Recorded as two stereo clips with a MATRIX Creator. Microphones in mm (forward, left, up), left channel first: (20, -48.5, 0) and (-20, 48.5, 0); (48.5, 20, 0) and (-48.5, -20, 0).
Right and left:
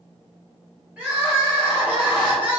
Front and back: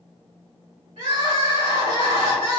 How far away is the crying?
About 2.0 m.